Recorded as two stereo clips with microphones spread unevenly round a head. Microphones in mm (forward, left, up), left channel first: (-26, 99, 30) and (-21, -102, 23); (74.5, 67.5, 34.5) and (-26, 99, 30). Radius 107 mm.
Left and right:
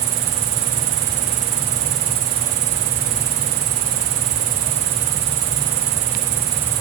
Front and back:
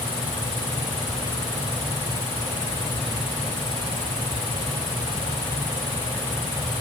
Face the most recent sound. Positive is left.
turn(degrees=-85)